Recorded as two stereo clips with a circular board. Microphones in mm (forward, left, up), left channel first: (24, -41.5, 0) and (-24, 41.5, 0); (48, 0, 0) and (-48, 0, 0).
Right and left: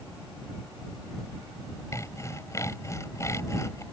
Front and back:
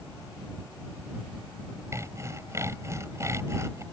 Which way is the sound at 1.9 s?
120° right.